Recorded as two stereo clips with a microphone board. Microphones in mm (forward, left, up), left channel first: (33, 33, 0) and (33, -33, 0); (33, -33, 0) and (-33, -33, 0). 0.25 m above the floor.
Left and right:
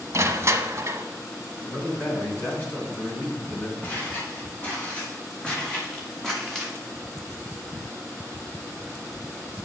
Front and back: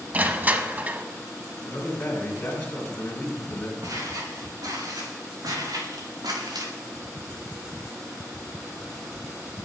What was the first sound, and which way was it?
Crushing, 120° right.